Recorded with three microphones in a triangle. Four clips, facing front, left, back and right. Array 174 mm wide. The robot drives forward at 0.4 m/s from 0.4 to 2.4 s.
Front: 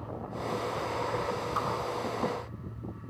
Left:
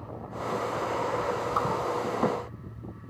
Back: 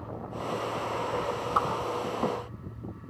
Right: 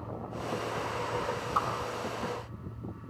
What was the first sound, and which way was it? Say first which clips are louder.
A whoosh: left 1 dB, back 7 dB; 170° left.